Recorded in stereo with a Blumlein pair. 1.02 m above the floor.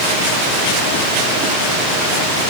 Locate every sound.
Only background noise.